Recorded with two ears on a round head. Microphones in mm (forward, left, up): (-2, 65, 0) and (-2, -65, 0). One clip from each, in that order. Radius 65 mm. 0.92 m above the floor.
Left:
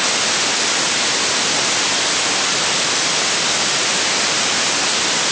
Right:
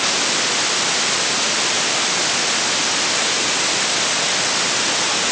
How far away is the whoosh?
I don't hear a whoosh.